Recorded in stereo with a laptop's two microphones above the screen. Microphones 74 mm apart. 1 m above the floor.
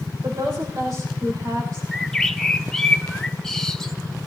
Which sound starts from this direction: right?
A woman speaking, at 0.2 s.